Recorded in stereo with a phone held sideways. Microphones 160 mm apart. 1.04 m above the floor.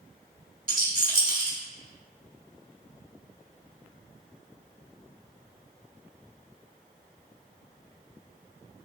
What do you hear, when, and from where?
0.7 s a rattle: 60° right (ahead or behind), 1.0 m